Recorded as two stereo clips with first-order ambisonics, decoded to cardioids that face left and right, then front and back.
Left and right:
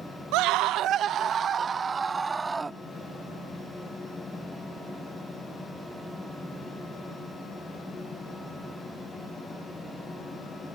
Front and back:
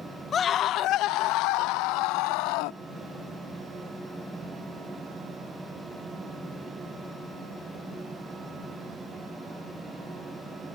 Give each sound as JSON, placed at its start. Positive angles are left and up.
{"t": 0.3, "sound": "a scream", "azimuth_deg": -65}